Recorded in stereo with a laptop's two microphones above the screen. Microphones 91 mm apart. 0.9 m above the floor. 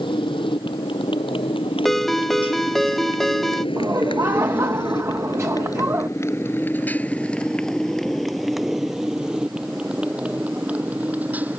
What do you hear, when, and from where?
0.0 s a motorcycle: 70° left (ahead or behind); by 11.6 s 20° right (ahead or behind)
1.9 s a ringtone: 5° left (ahead or behind)
3.8 s laughter: 30° right (ahead or behind)